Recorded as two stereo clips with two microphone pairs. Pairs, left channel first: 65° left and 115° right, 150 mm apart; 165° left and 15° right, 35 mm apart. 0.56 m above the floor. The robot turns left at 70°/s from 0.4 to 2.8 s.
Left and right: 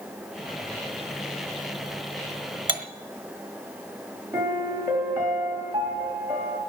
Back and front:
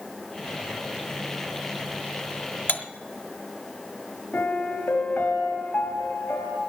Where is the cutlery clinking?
170° right, 1.1 m; by 2.8 s straight behind, 1.1 m.